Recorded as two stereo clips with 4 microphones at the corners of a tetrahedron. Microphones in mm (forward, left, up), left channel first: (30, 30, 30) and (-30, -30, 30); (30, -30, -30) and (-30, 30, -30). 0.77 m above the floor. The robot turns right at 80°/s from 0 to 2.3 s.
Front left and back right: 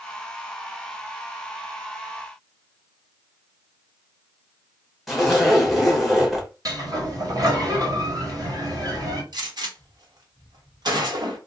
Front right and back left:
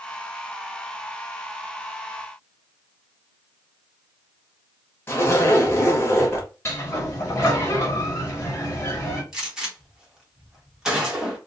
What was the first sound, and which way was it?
A zipper, 45° right.